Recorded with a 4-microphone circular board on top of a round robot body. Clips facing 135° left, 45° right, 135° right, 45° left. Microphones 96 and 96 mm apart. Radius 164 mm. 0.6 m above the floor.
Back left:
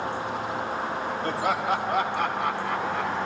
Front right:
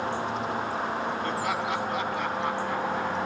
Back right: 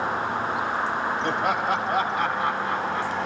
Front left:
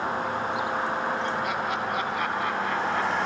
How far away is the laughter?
About 5 m.